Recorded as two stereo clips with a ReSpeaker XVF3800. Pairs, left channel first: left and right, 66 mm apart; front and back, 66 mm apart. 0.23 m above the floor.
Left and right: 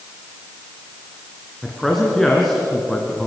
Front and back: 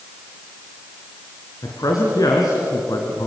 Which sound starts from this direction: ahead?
A man speaking, at 1.6 s.